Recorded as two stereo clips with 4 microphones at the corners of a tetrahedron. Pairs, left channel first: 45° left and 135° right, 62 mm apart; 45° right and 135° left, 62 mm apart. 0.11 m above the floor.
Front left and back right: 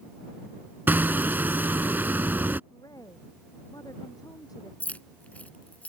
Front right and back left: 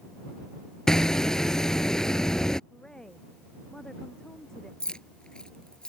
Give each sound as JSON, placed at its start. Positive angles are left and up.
{"t": 0.9, "sound": "hammering", "azimuth_deg": -115}
{"t": 2.7, "sound": "a woman speaking", "azimuth_deg": 35}
{"t": 4.8, "sound": "keys jangling", "azimuth_deg": 15}